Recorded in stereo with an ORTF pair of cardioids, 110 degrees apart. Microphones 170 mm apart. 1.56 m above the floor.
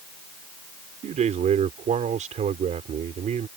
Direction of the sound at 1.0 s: 50° right.